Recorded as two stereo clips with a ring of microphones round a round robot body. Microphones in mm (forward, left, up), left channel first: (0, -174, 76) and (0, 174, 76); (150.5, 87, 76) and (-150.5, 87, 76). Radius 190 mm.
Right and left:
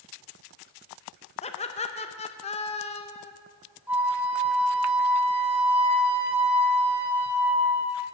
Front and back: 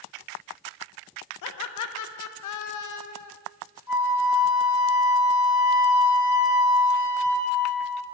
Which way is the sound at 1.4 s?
20° right.